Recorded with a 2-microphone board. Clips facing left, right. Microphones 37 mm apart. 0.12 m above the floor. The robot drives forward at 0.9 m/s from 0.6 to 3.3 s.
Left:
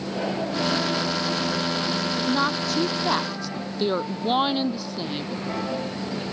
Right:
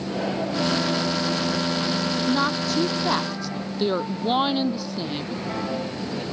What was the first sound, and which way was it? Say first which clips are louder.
A woman speaking: even; centre (ahead or behind).